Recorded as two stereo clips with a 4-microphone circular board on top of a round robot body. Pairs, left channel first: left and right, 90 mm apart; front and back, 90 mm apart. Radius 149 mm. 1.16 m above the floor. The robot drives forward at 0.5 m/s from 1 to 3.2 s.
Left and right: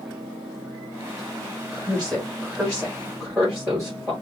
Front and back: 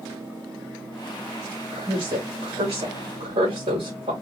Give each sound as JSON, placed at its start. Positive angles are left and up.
{"t": 1.7, "sound": "a woman speaking", "azimuth_deg": -170, "distance_m": 3.0}